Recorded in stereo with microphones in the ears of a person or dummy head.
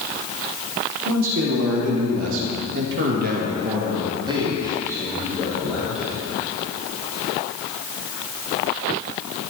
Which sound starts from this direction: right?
A man speaking, at 1.1 s.